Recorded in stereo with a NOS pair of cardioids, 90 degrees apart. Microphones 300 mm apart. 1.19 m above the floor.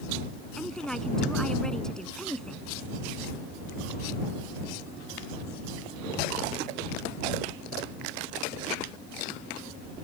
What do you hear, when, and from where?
0.6 s a woman speaking: straight ahead